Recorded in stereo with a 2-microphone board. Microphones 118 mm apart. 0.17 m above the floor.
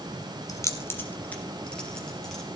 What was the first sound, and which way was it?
Keys jangling, 30° left (ahead or behind).